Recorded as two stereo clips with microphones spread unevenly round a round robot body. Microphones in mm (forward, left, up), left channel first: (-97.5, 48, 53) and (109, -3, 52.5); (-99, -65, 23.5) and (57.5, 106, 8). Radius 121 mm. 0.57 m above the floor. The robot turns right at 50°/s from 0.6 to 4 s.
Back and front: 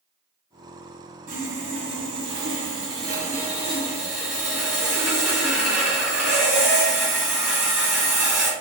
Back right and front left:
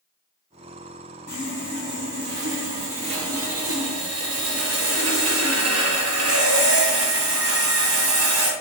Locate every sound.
1.3 s sawing: 70° right, 1.7 m; by 8.5 s 65° left, 1.7 m